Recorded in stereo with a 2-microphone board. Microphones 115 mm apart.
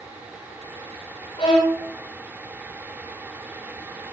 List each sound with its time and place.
1.4 s a violin: 45° left (ahead or behind), 9 m